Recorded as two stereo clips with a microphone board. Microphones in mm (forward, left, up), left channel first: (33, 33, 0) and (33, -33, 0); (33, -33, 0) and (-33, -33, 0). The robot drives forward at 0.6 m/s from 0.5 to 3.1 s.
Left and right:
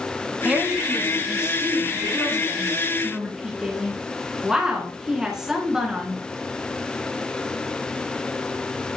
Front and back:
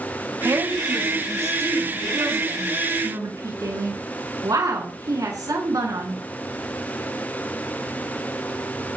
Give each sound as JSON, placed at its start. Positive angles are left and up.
{"t": 0.5, "sound": "a woman speaking", "azimuth_deg": -155, "distance_m": 2.0}